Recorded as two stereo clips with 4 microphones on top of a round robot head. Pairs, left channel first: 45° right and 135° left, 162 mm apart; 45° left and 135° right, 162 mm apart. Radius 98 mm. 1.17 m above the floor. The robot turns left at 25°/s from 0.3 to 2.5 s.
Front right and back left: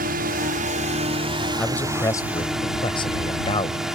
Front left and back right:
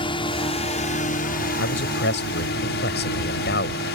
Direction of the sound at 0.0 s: 105° left.